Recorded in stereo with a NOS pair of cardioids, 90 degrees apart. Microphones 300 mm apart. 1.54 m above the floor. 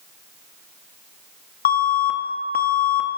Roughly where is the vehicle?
I don't hear a vehicle.